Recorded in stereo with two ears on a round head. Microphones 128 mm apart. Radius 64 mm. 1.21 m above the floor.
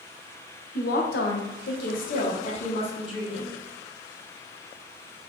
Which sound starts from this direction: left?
A woman speaking, at 0.8 s.